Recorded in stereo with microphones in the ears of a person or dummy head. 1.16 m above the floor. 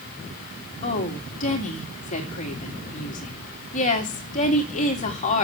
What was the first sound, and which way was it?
A woman speaking, 35° left (ahead or behind).